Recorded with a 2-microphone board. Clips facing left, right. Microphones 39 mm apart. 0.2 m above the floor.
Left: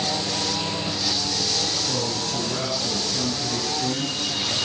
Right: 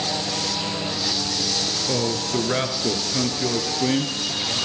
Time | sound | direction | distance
1.9 | a man speaking | 45° right (ahead or behind) | 3 m